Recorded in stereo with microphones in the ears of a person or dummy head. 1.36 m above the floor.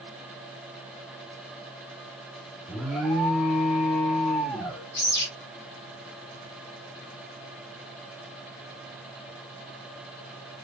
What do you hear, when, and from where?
2.7 s an alarm: centre (ahead or behind), 1.9 m
5.0 s a bird: 55° left (ahead or behind), 4.5 m